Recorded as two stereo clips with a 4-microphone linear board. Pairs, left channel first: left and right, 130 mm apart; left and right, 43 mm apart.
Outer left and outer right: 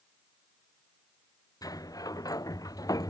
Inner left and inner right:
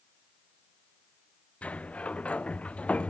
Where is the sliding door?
30° left (ahead or behind).